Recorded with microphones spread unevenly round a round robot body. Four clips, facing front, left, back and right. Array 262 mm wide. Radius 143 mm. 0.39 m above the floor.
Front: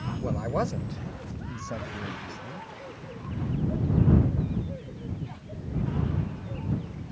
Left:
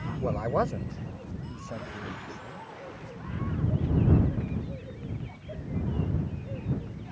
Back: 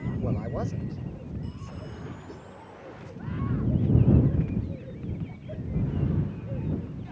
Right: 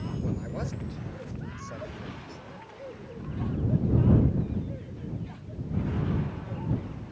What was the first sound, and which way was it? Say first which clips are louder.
A man speaking: left 10 dB, front 4 dB; 80° left.